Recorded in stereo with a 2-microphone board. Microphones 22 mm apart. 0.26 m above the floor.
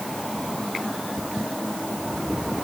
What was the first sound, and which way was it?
Only background noise.